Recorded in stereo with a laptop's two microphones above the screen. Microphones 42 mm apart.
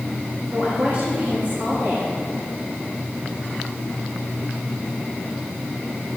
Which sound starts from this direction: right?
A woman speaking, at 0.5 s.